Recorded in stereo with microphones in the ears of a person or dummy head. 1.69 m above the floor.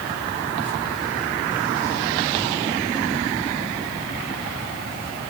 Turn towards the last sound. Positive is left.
No sound to turn to.